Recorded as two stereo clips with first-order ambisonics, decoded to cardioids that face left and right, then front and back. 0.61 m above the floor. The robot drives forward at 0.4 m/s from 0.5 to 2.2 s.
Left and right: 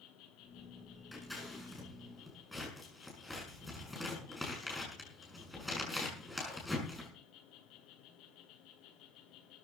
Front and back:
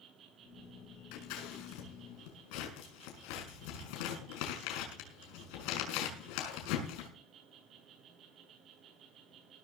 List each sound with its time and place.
0.0 s an insect: 120° left, 7 m; by 9.7 s 125° left, 7.5 m
1.1 s scissors: 5° left, 6.5 m